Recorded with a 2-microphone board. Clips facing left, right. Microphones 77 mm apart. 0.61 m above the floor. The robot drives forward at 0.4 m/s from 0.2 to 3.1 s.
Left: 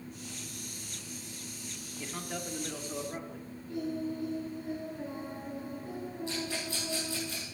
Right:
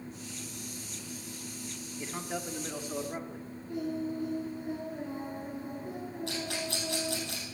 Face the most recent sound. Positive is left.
turn(degrees=-75)  # may be behind; listen again after turning